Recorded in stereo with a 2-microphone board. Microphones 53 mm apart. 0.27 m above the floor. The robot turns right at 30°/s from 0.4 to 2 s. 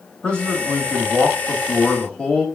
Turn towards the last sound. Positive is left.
turn(degrees=20)  # may be behind; listen again after turning